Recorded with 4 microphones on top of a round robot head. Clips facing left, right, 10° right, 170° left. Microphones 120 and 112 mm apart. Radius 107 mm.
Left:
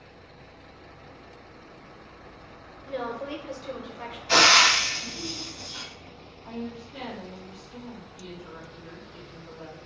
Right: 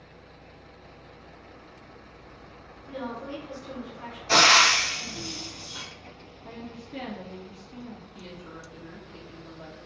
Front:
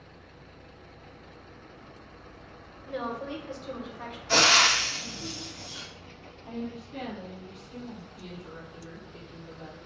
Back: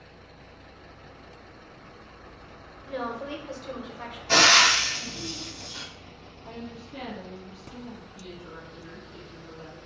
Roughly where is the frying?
Behind right.